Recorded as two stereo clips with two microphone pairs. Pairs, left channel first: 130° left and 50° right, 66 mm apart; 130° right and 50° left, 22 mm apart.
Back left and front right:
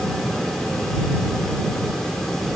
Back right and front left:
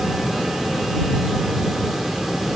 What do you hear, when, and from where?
Only background noise.